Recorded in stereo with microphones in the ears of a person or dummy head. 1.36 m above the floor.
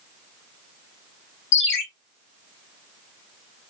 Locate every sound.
1.5 s a ringtone: 65° left (ahead or behind), 0.9 m